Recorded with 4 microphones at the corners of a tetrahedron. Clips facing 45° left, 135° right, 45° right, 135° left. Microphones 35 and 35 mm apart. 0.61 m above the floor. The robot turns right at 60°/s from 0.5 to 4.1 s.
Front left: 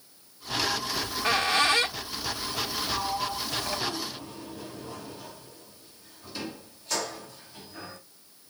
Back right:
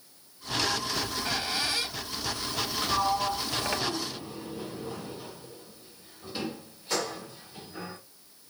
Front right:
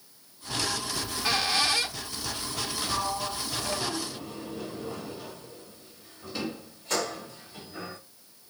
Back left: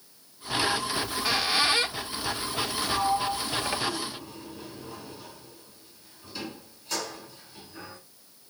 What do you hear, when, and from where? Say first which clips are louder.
0.9 s a squeak: front left 4 dB, back left 1 dB; 25° left, 0.7 m; by 3.8 s 160° right, 0.7 m
2.8 s a sliding door: back right 5 dB, back left 5 dB; 140° right, 3 m; by 8.0 s 65° right, 3 m